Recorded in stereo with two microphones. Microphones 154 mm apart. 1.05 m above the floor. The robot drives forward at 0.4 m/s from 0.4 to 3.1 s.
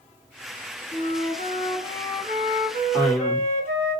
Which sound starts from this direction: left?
A flute, at 0.9 s.